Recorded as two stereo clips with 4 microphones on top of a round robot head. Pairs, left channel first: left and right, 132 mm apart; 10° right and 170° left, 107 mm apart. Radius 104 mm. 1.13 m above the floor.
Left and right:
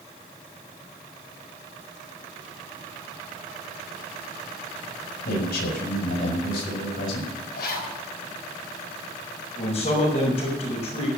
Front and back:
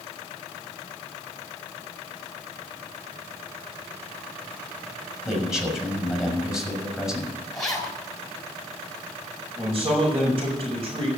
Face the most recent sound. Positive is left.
turn(degrees=125)